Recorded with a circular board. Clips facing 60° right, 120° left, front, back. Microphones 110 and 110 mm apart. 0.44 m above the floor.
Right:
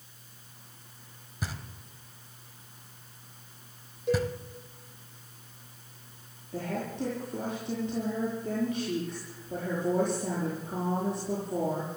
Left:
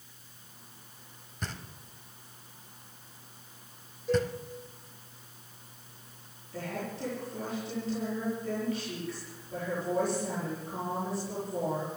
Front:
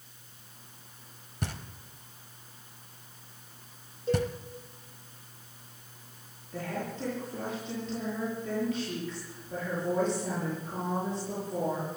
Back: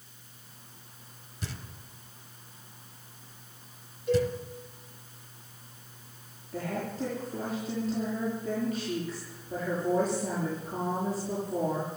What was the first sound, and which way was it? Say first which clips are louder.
Knocking: right 2 dB, front 4 dB; 20° left.